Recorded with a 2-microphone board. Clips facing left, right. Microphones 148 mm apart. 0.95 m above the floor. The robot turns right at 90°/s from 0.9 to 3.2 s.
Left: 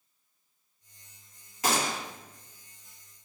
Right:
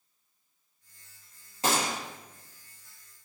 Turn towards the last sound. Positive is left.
turn(degrees=95)